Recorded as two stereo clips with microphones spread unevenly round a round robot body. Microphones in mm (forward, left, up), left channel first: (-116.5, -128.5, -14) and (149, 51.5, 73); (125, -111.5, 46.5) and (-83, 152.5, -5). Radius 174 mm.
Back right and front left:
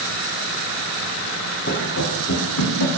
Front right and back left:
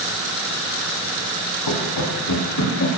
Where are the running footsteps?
85° right, 3 m; by 2.9 s 110° right, 3 m.